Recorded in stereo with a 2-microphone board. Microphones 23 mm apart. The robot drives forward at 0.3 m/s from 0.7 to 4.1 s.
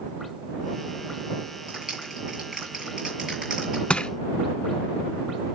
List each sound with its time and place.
1.7 s a clap: 30° right (ahead or behind), 9.5 m; by 3.8 s 25° right (ahead or behind), 10 m
3.9 s crushing: 55° left (ahead or behind), 0.9 m; by 4.1 s 50° left (ahead or behind), 0.9 m